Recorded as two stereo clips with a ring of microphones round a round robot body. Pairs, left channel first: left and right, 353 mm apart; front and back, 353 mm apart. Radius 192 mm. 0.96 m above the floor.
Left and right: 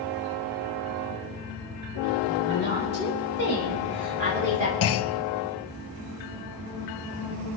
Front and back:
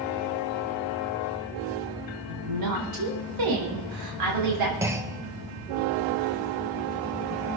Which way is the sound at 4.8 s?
100° left.